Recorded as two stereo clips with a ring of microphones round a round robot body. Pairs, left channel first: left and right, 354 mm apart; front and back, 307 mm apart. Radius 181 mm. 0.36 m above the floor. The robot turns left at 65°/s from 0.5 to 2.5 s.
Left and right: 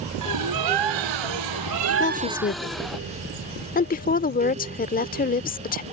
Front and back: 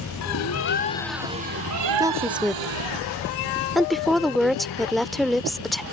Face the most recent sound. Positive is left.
turn(degrees=90)